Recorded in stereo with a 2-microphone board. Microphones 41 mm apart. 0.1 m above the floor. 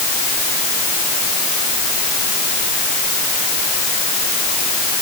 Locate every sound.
Only background noise.